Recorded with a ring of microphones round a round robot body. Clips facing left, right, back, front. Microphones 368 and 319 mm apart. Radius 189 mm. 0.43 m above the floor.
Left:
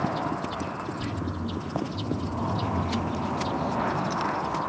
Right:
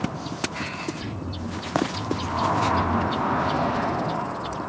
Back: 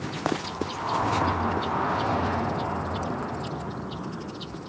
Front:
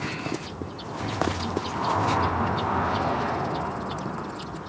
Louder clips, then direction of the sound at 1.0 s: Left 1 dB, back 3 dB; 85° left.